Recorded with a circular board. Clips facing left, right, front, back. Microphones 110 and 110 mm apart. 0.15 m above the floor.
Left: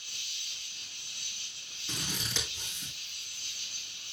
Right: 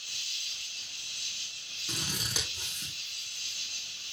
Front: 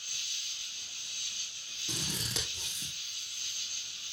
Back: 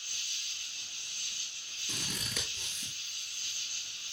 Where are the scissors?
10° right, 3.5 m.